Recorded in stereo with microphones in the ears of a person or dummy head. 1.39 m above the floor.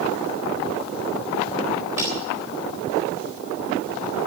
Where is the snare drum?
15° right (ahead or behind), 2 m.